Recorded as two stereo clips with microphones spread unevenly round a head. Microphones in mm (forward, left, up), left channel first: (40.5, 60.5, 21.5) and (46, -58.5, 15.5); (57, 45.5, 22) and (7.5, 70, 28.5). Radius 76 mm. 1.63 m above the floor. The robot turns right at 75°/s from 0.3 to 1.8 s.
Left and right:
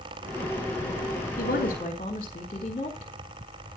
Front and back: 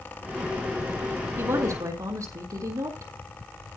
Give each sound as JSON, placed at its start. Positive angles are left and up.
{"t": 1.4, "sound": "a woman speaking", "azimuth_deg": 110, "distance_m": 4.0}